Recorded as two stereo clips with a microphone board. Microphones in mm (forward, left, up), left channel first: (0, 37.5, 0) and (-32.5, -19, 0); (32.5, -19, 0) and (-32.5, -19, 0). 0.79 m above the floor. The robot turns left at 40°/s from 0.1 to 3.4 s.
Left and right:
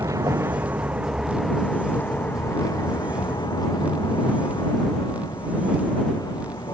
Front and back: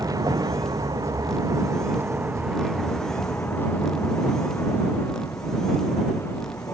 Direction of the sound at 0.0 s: 150° right.